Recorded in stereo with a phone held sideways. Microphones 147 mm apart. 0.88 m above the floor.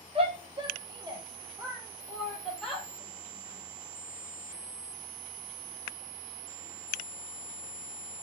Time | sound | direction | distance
0.1 | a shout | 40° right (ahead or behind) | 1.3 m